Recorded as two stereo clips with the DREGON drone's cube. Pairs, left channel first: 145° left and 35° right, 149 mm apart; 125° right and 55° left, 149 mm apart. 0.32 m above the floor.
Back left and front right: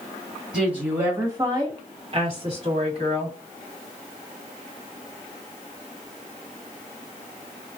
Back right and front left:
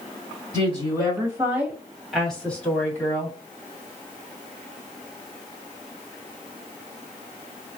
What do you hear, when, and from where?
0.5 s a woman speaking: 45° left, 1.4 m; by 3.3 s 60° right, 2.0 m